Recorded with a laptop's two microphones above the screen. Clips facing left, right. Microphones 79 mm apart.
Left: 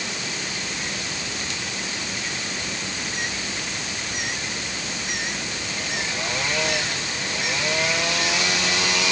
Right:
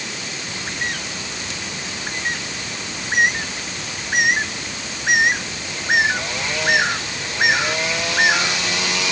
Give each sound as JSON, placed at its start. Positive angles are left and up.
{"t": 0.5, "sound": "a bird", "side_deg": -60}